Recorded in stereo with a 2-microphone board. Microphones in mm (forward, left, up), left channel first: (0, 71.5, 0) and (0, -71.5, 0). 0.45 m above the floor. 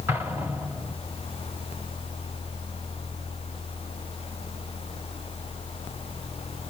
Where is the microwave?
No microwave in this recording.